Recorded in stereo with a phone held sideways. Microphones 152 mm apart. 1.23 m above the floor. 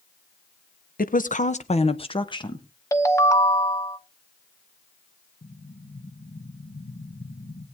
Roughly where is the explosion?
Left.